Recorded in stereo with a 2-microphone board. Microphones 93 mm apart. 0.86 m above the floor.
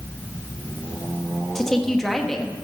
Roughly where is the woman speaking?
Centre.